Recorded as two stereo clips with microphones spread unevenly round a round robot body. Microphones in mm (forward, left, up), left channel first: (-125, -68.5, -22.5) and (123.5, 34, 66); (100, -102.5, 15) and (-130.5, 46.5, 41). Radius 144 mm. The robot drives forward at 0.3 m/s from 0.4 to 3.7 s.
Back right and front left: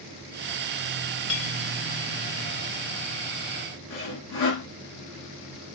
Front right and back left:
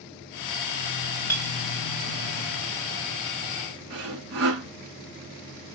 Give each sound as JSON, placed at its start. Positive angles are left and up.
{"t": 1.3, "sound": "a clink", "azimuth_deg": -130, "distance_m": 2.5}
{"t": 3.9, "sound": "sawing", "azimuth_deg": -170, "distance_m": 1.4}